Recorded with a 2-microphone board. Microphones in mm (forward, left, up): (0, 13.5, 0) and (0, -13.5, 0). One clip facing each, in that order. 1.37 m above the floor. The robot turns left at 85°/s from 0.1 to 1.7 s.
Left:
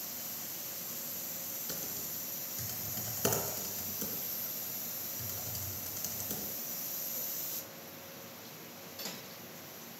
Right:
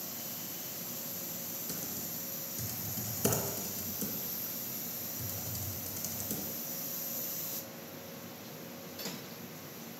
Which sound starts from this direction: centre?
Typing on a keyboard, at 1.7 s.